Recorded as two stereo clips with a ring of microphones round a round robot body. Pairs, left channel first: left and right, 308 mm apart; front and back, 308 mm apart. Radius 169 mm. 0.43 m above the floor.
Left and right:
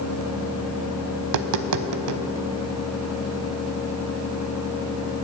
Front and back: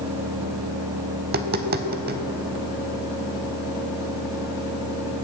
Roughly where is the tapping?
Behind right.